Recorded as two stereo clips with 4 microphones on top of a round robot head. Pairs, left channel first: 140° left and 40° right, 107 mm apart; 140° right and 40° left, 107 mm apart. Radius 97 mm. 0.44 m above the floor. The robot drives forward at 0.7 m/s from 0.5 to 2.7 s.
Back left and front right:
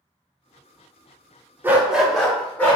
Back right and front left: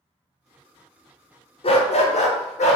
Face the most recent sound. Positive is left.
turn(degrees=-145)